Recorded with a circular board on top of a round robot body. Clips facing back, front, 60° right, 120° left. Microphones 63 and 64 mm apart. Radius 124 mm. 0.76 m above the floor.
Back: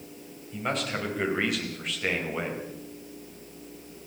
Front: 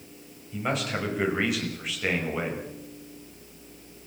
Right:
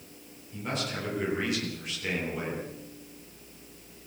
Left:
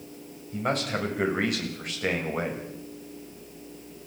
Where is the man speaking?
85° left, 6 m.